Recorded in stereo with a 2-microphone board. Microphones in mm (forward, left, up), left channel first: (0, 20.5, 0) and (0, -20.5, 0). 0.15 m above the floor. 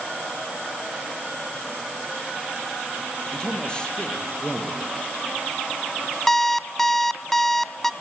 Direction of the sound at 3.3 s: 20° left (ahead or behind).